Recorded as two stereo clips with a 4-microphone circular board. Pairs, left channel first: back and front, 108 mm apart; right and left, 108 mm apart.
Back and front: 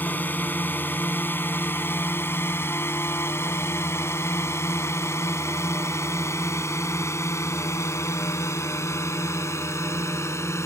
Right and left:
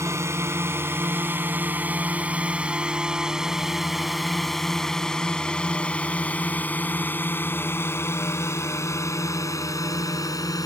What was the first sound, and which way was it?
A drone, 125° left.